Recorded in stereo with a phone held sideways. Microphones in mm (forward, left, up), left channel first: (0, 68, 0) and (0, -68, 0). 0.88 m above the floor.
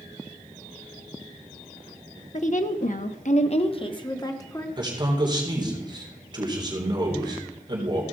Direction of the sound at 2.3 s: 55° left (ahead or behind).